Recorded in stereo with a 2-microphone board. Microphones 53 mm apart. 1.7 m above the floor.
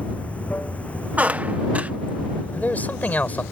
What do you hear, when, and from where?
0.0 s running water: 25° left (ahead or behind)
1.2 s a squeak: 30° right (ahead or behind)
2.5 s a man speaking: 30° left (ahead or behind)